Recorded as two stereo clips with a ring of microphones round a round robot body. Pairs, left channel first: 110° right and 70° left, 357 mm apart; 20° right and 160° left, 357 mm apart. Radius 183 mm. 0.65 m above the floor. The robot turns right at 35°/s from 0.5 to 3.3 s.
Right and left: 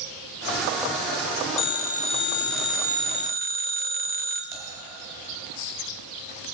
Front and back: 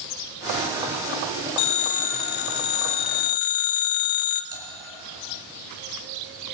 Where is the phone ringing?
60° right, 0.9 m; by 4.4 s straight ahead, 0.9 m.